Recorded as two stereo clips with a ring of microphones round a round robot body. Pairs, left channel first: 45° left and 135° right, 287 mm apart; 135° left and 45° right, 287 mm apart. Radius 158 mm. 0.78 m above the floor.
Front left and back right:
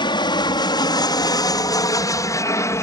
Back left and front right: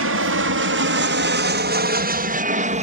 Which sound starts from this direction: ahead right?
An aircraft, at 0.0 s.